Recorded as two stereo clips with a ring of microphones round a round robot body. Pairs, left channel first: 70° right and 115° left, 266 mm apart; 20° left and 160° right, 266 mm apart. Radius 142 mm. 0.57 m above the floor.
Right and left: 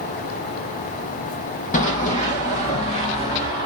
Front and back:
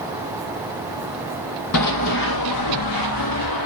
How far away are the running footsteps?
About 0.9 m.